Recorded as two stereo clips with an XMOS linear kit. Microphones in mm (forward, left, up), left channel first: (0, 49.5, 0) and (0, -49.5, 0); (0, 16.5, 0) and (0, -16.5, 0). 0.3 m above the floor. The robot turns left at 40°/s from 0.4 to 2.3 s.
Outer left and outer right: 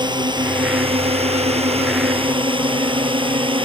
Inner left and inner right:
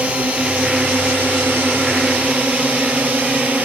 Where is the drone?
45° right; by 3.6 s 120° right.